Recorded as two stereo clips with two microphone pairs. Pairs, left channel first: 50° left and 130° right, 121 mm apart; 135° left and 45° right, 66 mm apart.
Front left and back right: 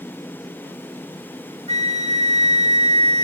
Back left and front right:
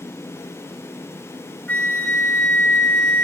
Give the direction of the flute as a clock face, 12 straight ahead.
5 o'clock.